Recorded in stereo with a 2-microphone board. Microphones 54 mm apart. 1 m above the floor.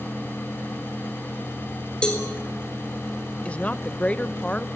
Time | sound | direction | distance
2.0 | a cowbell | 15° left (ahead or behind) | 4 m
3.5 | a woman speaking | 25° left (ahead or behind) | 0.7 m